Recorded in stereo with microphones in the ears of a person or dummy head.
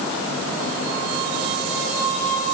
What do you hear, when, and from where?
Only background noise.